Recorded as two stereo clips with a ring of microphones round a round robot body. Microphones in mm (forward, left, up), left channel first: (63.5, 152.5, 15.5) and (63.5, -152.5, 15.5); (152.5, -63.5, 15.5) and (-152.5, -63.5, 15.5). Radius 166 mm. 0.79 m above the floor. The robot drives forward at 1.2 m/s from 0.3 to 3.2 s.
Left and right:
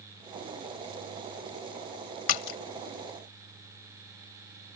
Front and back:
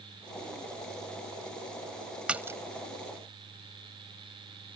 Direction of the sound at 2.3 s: 95° left.